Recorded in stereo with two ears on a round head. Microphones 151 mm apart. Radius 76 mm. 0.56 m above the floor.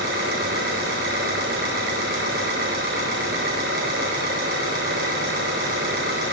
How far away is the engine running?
About 6 m.